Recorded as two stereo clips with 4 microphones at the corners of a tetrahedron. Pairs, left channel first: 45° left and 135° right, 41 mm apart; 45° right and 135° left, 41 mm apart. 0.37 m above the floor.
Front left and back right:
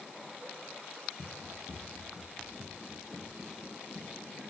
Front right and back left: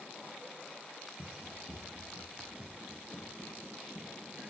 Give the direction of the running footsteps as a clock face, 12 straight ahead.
2 o'clock.